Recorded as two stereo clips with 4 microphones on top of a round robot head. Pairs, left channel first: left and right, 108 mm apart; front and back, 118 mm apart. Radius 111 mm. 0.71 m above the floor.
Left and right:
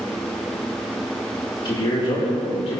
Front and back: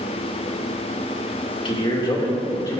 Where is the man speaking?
40° left, 1.9 m; by 2.8 s 60° left, 3 m.